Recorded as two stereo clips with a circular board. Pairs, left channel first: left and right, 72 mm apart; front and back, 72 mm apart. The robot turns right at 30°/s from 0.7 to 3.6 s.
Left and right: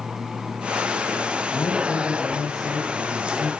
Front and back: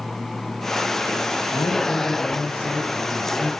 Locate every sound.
1.5 s a man speaking: 30° left, 2.5 m; by 3.5 s 90° left, 2.5 m